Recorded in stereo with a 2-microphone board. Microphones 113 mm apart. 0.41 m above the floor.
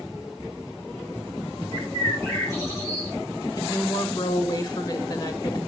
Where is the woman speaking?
35° left (ahead or behind), 1.3 m.